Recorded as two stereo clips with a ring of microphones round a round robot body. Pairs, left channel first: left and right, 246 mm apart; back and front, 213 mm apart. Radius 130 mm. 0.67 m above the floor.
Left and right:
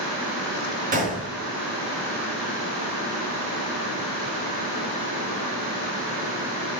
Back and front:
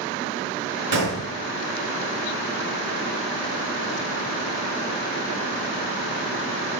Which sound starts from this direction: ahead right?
A gunshot, at 0.9 s.